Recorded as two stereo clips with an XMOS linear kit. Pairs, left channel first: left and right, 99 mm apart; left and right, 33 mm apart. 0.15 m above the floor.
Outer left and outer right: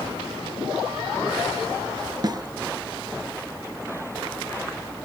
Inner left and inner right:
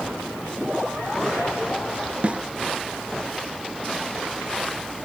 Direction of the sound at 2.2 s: 45° right (ahead or behind).